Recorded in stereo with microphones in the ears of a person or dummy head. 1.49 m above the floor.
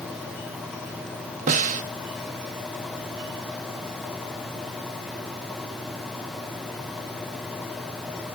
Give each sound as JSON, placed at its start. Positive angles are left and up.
{"t": 1.5, "sound": "a snare drum", "side_deg": -40, "distance_m": 1.0}